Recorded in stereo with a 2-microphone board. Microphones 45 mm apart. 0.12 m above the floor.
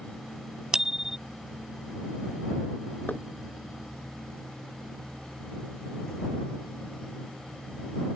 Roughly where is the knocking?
Left.